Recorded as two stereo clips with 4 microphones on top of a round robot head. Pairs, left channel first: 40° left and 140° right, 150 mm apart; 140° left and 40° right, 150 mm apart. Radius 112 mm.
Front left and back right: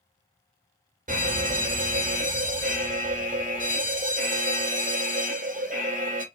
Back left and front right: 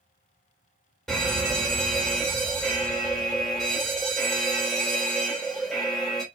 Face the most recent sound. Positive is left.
turn(degrees=-130)